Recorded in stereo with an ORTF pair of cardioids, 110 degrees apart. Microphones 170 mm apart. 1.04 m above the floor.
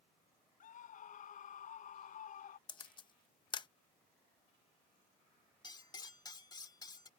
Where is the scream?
50° left.